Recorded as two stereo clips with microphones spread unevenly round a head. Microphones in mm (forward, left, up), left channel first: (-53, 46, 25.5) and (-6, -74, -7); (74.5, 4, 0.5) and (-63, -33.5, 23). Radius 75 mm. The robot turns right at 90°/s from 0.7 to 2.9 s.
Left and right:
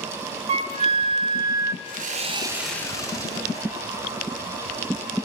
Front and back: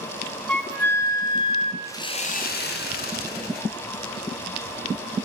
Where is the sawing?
60° right, 1.9 m; by 3.7 s 40° left, 1.9 m.